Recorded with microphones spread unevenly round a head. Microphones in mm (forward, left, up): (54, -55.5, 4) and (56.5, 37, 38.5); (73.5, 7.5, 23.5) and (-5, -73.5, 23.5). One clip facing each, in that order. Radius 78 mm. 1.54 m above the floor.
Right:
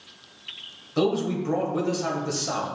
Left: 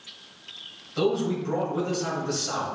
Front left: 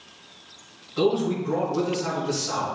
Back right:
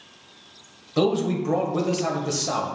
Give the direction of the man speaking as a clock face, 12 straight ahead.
4 o'clock.